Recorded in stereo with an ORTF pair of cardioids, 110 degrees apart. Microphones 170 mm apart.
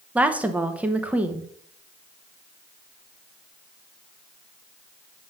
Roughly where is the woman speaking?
Ahead.